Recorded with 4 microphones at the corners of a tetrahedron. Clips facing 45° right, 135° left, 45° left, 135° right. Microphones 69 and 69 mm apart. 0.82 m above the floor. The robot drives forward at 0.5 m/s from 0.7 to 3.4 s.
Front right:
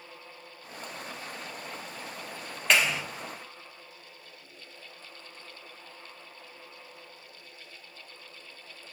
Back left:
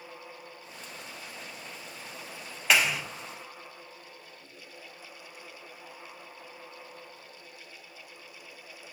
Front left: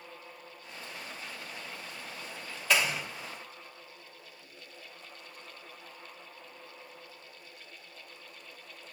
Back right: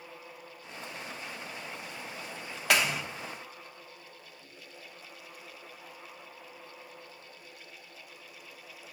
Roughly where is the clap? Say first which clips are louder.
Even, back right 1 dB; behind right.